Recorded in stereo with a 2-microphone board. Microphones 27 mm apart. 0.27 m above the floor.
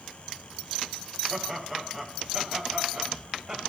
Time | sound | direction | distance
1.3 | laughter | 5° right (ahead or behind) | 5.5 m